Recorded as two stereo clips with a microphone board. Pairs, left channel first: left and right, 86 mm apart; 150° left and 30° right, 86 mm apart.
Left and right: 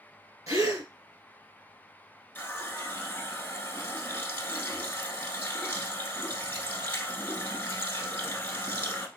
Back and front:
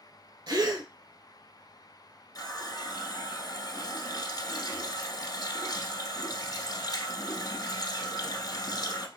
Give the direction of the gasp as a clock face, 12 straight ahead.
2 o'clock.